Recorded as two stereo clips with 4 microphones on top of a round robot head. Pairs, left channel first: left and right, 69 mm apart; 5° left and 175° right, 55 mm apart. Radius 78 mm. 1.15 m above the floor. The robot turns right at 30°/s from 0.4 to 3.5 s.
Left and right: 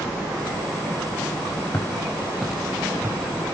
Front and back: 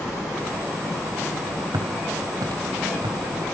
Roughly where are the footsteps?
Behind.